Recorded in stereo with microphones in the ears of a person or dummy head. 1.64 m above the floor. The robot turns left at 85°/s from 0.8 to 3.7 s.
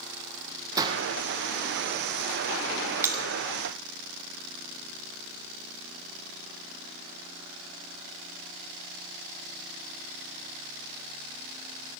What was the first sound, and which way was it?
A gunshot, 20° right (ahead or behind).